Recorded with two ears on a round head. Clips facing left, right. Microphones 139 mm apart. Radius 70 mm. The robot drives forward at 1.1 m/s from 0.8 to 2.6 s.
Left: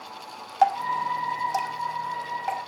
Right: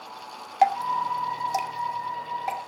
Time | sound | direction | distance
0.6 | dripping | 15° right (ahead or behind) | 1.2 m